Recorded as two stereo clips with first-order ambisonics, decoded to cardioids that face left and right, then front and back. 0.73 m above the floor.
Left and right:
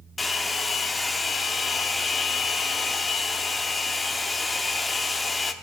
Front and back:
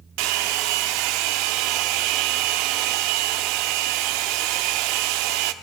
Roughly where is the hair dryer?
Behind.